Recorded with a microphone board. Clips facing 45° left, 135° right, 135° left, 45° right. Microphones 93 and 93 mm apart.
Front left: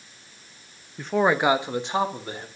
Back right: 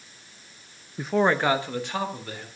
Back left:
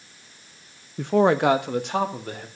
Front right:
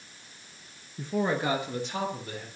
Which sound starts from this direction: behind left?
A man speaking, at 1.0 s.